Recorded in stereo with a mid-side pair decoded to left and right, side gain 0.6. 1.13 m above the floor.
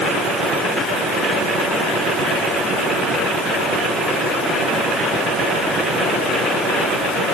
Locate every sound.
Only background noise.